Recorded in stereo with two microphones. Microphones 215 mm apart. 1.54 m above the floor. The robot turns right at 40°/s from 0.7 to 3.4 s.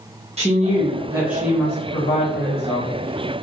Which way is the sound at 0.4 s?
30° right.